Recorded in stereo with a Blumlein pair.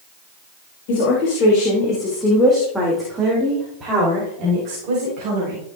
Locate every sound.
0.9 s a woman speaking: 45° left, 3 m; by 5.6 s 40° right, 5.5 m